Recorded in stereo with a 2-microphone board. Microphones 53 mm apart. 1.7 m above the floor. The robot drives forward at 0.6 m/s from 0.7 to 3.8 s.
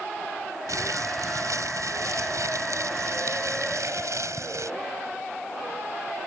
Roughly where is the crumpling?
Right.